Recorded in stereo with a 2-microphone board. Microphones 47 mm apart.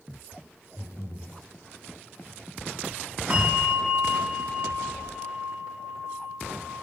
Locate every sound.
0.8 s breathing: 65° left (ahead or behind), 4 m
3.3 s a bell: 20° right (ahead or behind), 5 m